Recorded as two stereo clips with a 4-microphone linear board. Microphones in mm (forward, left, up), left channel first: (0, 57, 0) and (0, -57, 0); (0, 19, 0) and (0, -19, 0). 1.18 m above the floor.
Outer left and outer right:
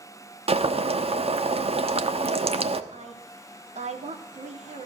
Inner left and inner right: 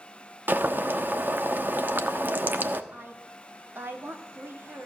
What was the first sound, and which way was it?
Boiling, 60° right (ahead or behind).